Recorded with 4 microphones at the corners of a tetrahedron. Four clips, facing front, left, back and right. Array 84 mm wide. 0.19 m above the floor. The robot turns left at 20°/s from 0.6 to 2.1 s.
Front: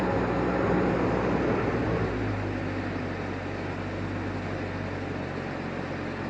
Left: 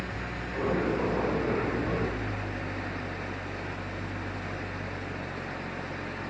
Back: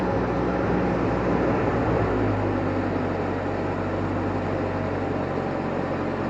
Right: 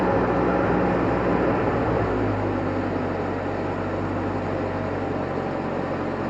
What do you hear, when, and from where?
0.0 s an engine running: 100° right; by 6.3 s 130° right